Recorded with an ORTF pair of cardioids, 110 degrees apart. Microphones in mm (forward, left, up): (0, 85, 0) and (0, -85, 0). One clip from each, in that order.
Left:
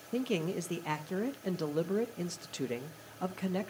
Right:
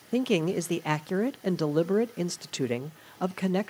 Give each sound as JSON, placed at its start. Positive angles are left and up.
{"t": 0.1, "sound": "a man speaking", "azimuth_deg": -35, "distance_m": 0.6}